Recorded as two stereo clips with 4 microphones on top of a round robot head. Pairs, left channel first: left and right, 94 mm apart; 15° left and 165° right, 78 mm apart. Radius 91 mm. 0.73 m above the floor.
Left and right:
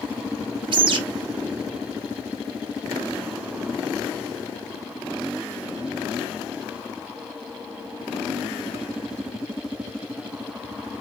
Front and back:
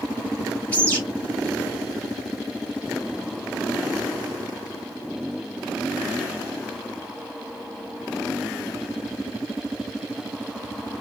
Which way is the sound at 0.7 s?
60° right.